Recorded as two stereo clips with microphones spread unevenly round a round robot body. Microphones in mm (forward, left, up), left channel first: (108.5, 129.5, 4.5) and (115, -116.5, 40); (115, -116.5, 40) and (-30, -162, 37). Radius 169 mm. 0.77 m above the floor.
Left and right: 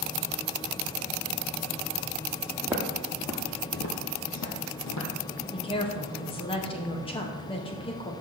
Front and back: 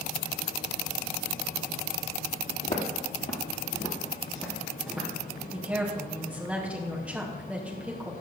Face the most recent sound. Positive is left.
turn(degrees=125)